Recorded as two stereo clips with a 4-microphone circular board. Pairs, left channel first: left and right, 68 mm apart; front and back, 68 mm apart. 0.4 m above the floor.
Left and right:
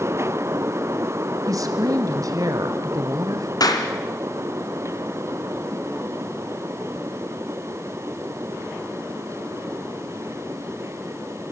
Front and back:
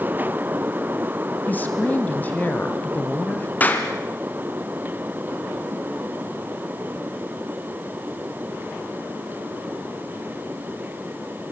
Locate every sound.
1.5 s a woman speaking: 60° right, 2.5 m
3.6 s a clap: 65° left, 3 m